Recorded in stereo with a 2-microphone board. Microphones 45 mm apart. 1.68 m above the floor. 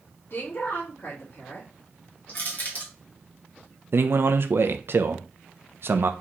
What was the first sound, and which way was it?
A woman speaking, 60° left (ahead or behind).